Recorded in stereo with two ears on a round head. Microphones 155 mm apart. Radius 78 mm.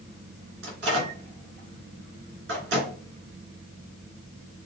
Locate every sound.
0.6 s a microwave: 70° right (ahead or behind), 2.5 m